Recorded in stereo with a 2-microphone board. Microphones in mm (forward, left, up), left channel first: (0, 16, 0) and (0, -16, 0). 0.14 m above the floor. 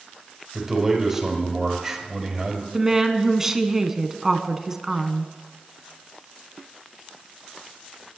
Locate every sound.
0.5 s a man speaking: 15° right (ahead or behind), 4 m
2.7 s a woman speaking: 15° right (ahead or behind), 1.0 m